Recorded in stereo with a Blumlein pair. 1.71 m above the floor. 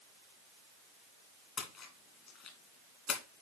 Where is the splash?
30° left, 2.5 m.